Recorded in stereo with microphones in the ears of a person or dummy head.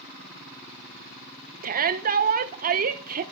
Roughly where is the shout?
Right.